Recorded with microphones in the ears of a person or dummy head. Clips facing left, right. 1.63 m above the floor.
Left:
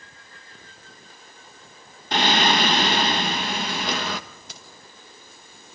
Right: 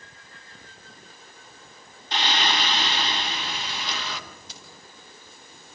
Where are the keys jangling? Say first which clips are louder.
Left 1 dB; 50° left (ahead or behind), 5 m.